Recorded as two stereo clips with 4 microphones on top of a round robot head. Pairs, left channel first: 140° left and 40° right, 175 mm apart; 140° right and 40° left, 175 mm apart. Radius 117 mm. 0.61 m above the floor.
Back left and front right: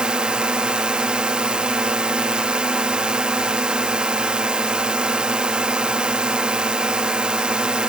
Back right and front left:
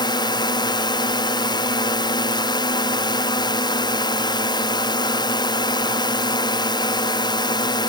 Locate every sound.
0.0 s a drone: 120° right